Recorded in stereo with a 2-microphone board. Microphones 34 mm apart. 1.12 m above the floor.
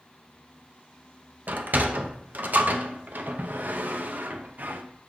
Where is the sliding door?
65° right (ahead or behind), 0.8 m.